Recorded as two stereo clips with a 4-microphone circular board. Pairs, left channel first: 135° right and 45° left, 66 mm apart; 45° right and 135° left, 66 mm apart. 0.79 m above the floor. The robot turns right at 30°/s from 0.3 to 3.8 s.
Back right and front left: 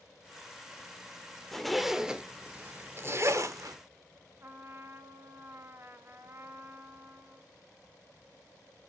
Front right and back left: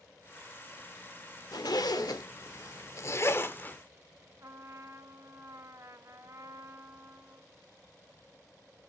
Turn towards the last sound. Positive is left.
turn(degrees=95)